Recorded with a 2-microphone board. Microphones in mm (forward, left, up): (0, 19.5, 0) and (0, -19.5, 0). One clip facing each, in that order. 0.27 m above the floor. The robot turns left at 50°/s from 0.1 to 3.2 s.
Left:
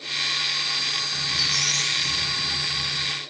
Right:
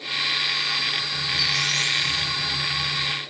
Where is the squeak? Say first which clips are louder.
Right 2 dB; 135° left, 5.5 m; by 3.1 s 30° left, 5.5 m.